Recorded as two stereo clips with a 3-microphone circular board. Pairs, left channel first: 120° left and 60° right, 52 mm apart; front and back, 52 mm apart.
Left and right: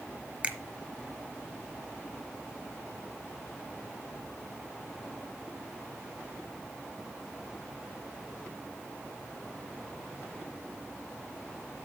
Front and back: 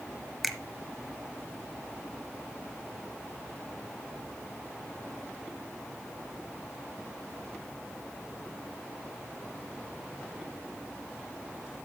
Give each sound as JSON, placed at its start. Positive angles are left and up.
{"t": 0.4, "sound": "a finger snap", "azimuth_deg": -95, "distance_m": 1.0}